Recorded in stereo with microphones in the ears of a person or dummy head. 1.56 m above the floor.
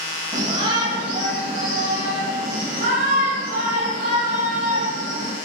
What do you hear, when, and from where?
0.3 s a shout: 30° right (ahead or behind), 2.5 m; by 5.3 s 60° right (ahead or behind), 5 m